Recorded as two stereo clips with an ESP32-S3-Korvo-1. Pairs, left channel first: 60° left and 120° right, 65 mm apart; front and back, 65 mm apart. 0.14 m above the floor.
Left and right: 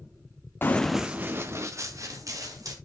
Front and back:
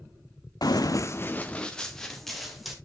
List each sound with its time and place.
0.6 s running footsteps: 5° left, 0.7 m; by 2.7 s 90° right, 2.5 m